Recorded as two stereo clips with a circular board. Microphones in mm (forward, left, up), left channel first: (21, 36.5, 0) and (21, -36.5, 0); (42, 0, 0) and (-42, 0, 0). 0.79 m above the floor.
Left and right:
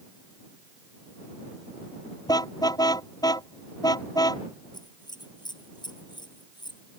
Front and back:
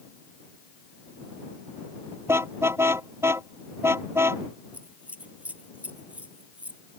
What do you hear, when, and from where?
2.3 s a car horn: 120° left
4.7 s scissors: 105° left